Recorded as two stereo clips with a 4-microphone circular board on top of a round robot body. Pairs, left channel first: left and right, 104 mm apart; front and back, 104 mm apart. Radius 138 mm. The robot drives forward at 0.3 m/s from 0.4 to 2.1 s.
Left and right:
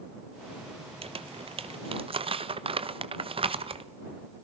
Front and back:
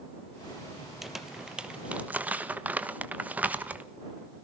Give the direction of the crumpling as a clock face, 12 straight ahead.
3 o'clock.